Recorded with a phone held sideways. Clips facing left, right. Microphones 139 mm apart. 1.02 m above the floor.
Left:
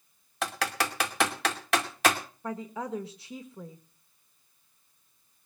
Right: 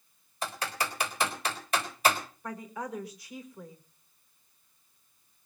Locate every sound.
0.4 s typing on a keyboard: 75° left (ahead or behind), 2.5 m
2.4 s a woman speaking: 25° left (ahead or behind), 1.6 m